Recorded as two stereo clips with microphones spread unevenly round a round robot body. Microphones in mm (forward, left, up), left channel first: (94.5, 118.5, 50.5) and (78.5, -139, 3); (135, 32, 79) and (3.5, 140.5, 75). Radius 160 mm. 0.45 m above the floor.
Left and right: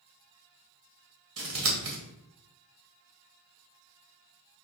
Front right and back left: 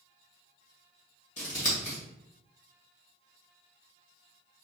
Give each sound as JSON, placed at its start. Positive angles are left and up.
{"t": 1.4, "sound": "scissors", "azimuth_deg": -85, "distance_m": 2.0}